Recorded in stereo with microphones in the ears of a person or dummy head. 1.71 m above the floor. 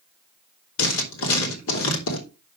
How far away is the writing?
About 3.5 m.